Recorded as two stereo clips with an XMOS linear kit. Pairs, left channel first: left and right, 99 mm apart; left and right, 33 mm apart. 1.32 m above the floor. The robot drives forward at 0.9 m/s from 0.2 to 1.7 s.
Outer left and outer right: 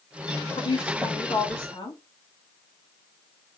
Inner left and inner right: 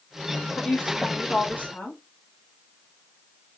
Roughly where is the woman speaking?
Left.